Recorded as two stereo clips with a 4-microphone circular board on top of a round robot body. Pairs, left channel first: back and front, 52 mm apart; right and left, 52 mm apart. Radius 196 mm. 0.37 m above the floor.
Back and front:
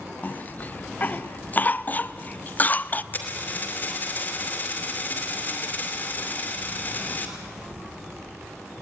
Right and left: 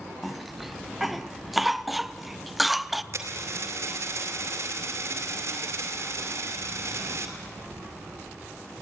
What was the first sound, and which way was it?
A cough, 175° left.